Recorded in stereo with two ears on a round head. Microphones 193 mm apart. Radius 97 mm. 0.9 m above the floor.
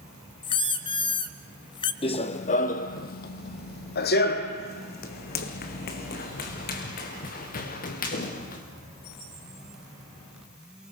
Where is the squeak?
25° left (ahead or behind), 1.3 m.